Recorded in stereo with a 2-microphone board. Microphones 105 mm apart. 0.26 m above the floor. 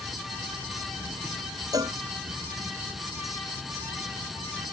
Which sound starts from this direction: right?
A cowbell, at 1.7 s.